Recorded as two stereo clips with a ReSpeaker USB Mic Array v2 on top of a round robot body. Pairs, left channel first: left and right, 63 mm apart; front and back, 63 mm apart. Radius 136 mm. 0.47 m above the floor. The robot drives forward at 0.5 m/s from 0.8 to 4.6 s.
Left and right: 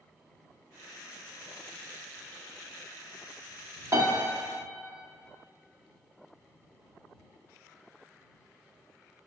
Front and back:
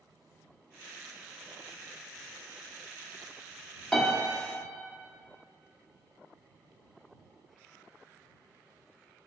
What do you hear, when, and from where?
3.9 s a piano: 80° right, 1.4 m; by 4.1 s 90° right, 1.3 m